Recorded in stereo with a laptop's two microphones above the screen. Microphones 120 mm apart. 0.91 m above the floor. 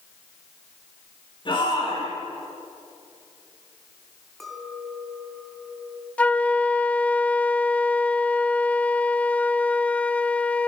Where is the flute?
10° left (ahead or behind), 0.5 m.